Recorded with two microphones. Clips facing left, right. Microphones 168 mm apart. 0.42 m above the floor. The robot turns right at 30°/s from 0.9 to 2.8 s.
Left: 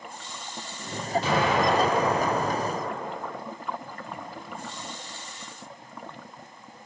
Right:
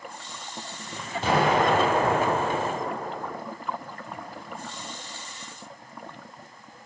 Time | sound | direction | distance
1.2 | an explosion | 125° right | 2.5 m